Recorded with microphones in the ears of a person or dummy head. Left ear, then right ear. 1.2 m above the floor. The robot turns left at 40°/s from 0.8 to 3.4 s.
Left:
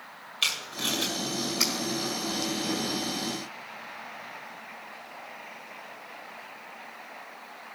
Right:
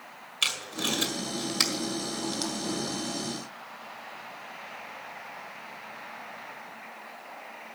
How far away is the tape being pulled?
About 1.6 m.